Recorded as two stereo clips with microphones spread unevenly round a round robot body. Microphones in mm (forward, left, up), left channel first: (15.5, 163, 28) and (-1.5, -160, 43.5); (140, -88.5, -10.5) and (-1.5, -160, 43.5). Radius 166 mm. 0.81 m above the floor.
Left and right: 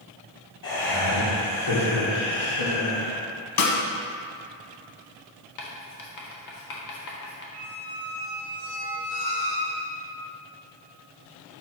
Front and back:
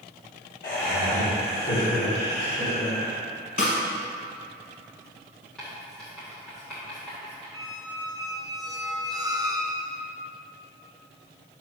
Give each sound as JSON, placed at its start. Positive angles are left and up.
{"t": 0.6, "sound": "laughter", "azimuth_deg": 55, "distance_m": 1.8}
{"t": 3.6, "sound": "a snare drum", "azimuth_deg": 85, "distance_m": 1.1}
{"t": 5.6, "sound": "writing", "azimuth_deg": 105, "distance_m": 1.3}
{"t": 7.5, "sound": "a squeak", "azimuth_deg": -120, "distance_m": 0.7}